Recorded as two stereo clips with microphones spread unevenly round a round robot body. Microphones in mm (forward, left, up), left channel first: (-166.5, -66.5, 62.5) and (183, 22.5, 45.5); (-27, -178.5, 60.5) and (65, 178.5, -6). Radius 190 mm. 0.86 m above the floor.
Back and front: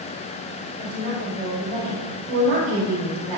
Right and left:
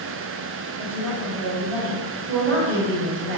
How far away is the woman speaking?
About 3 m.